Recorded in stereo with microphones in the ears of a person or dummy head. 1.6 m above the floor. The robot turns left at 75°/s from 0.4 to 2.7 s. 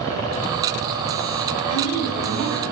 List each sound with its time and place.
1.7 s a woman speaking: 15° left, 1.9 m; by 2.6 s 55° right, 1.9 m